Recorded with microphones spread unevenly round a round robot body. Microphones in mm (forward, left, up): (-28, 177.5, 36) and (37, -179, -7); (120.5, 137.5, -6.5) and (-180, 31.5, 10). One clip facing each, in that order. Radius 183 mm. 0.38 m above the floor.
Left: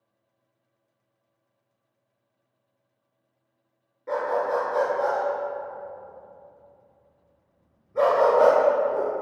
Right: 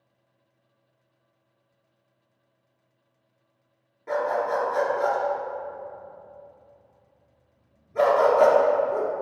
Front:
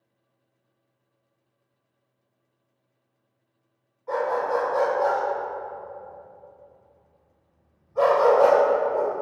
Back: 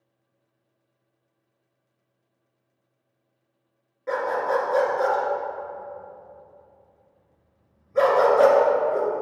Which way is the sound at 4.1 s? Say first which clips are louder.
Even, even; 160° right.